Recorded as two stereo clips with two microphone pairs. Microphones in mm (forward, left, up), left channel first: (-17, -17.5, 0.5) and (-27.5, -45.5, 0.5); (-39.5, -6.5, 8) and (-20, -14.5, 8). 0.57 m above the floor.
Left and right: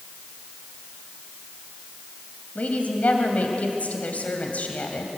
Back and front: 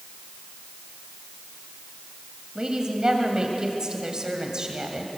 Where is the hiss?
I don't hear a hiss.